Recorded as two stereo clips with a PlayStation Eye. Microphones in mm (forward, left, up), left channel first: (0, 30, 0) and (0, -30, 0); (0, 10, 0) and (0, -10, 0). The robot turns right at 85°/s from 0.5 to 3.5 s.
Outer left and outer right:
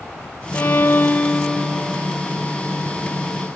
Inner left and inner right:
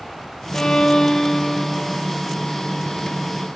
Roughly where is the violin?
Left.